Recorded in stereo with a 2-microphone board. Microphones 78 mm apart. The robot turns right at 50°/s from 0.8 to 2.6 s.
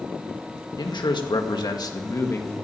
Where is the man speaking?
70° left, 1.9 m; by 2.5 s 155° left, 1.9 m.